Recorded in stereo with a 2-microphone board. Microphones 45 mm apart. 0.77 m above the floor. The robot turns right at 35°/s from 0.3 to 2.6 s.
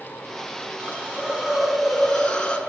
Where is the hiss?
40° right, 5 m; by 2.6 s 25° left, 5 m.